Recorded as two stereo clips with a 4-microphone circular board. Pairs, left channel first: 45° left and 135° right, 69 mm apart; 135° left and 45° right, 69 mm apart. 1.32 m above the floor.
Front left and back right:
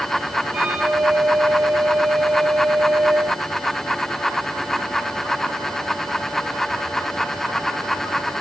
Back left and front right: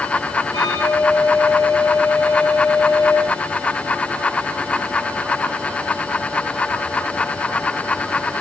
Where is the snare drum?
No snare drum in this recording.